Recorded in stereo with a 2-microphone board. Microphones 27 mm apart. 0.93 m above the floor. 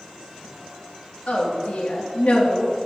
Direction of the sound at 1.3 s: 65° left (ahead or behind).